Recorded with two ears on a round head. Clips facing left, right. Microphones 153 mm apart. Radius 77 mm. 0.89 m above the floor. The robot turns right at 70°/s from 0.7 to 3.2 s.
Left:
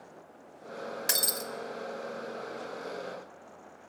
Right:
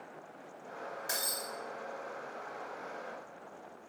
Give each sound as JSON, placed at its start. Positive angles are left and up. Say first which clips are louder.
{"t": 1.1, "sound": "breaking glass", "louder": "left 4 dB", "side_deg": 80, "distance_m": 0.9}